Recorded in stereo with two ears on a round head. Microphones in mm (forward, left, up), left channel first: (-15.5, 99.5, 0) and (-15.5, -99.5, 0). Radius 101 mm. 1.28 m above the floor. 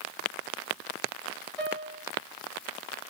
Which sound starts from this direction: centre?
A piano, at 1.6 s.